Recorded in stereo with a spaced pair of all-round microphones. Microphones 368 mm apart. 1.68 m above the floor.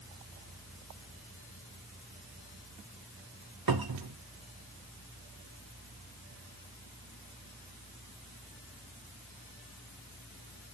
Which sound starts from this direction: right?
A cupboard door, at 3.7 s.